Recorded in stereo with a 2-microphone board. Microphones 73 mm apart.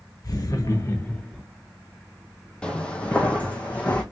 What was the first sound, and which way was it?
Laughter, 55° left (ahead or behind).